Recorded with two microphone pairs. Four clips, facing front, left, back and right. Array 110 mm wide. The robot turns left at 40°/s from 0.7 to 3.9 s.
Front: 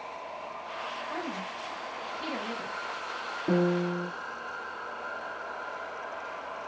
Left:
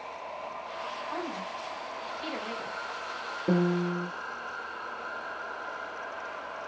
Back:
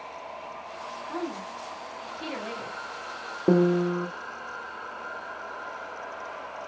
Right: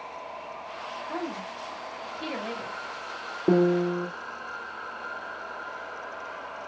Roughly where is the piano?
Behind.